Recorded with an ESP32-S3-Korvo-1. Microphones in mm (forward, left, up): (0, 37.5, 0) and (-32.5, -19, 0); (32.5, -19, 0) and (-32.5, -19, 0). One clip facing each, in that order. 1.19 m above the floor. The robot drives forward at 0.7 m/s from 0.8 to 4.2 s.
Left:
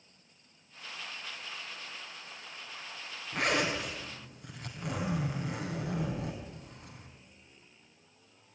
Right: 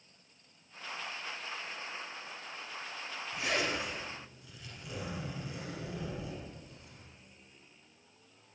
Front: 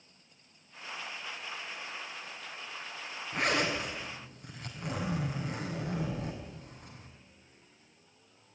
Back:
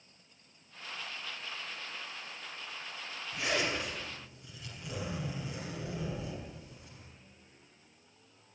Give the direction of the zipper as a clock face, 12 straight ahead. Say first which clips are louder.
Left 4 dB, front 3 dB; 11 o'clock.